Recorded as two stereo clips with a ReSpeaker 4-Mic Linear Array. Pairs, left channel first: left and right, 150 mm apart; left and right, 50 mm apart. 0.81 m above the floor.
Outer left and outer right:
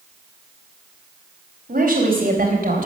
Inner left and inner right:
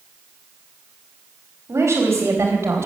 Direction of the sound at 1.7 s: 70° right (ahead or behind).